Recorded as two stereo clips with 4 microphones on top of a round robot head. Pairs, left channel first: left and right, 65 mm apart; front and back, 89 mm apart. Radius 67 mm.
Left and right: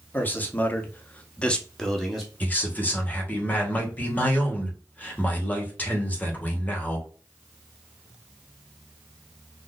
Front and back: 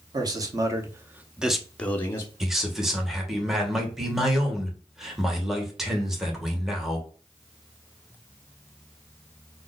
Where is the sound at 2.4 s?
95° left, 1.1 m.